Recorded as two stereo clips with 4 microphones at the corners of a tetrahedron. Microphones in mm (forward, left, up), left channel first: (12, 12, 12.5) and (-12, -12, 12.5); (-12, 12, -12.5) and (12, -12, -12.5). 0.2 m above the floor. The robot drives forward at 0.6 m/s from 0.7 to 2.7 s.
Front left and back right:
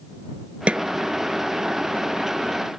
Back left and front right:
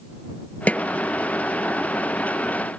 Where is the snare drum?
Straight behind.